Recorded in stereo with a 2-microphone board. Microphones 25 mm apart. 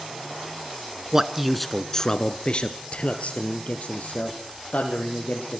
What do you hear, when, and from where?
1.1 s a man speaking: 20° right (ahead or behind), 1.2 m; by 5.6 s 75° left (ahead or behind), 4.5 m